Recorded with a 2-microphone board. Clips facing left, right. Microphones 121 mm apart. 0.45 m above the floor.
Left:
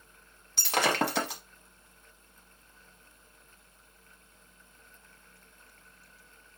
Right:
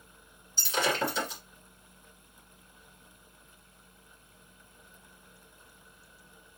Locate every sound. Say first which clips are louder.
0.6 s breaking glass: left 2 dB; 75° left (ahead or behind), 1.2 m